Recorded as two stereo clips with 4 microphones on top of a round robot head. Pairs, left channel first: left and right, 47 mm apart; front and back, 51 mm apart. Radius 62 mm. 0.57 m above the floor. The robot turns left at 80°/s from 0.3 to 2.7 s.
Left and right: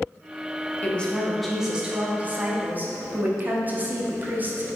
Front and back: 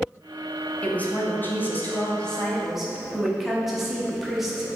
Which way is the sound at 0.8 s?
50° left.